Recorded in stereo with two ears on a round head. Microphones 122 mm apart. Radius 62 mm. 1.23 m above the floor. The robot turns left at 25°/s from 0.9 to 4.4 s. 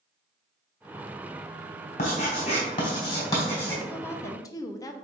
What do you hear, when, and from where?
2.0 s writing: 60° left (ahead or behind), 3 m; by 3.7 s 15° left (ahead or behind), 3 m
3.8 s a woman speaking: 15° left (ahead or behind), 0.8 m; by 4.9 s 25° left (ahead or behind), 0.8 m